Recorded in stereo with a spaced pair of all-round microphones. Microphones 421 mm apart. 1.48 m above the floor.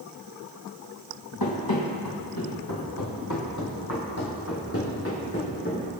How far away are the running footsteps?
About 3 m.